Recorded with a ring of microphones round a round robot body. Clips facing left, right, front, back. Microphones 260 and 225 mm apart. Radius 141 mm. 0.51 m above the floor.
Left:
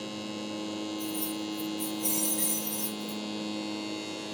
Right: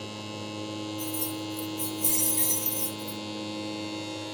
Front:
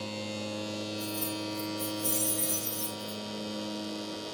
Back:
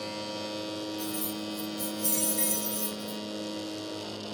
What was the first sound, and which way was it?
Keys jangling, 110° right.